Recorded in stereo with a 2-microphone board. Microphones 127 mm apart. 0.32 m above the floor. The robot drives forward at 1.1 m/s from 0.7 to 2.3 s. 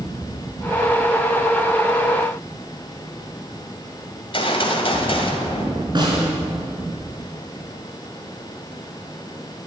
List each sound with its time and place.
4.2 s a gunshot: 50° left (ahead or behind), 1.9 m
6.0 s a snare drum: 40° right (ahead or behind), 4 m